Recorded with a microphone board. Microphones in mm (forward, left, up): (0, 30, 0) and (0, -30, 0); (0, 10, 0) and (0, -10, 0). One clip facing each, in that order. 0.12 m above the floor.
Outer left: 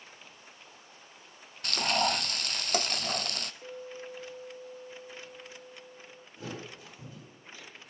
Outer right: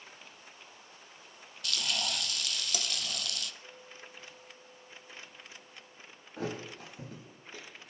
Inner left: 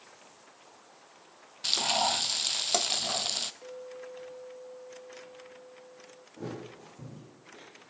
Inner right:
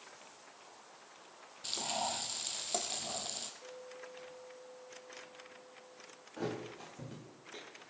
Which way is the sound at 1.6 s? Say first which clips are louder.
Outer left 8 dB, inner left 10 dB; 50° left (ahead or behind).